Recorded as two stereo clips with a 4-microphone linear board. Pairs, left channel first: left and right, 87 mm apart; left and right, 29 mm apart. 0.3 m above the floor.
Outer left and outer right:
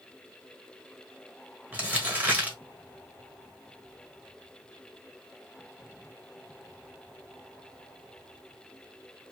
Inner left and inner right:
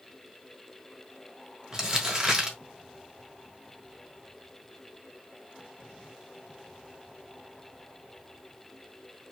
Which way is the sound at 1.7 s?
20° right (ahead or behind).